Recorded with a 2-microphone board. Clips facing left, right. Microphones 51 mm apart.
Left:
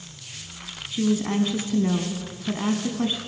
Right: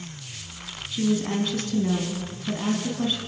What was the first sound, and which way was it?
A woman speaking, 15° left (ahead or behind).